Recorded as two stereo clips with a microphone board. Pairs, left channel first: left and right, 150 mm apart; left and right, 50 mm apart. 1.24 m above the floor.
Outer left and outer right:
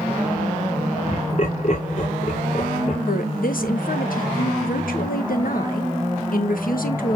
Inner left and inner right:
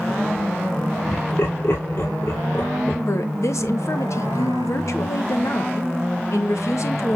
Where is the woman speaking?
70° left (ahead or behind), 1.5 m.